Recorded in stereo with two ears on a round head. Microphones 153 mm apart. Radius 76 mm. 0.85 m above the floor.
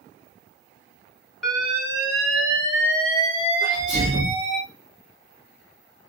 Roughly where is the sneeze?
Right.